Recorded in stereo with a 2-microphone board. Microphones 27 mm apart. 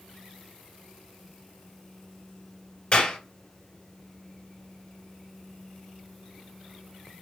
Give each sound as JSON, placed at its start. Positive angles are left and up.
{"t": 2.9, "sound": "a clap", "side_deg": 40, "distance_m": 1.8}